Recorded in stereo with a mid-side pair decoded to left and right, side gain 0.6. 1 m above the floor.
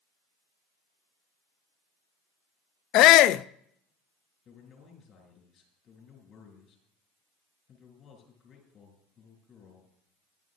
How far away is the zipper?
I don't hear a zipper.